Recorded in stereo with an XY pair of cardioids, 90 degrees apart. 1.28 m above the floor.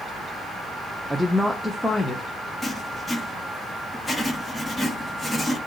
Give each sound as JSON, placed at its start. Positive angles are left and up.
{"t": 1.1, "sound": "a woman speaking", "azimuth_deg": -10, "distance_m": 0.6}
{"t": 2.6, "sound": "writing", "azimuth_deg": 25, "distance_m": 1.7}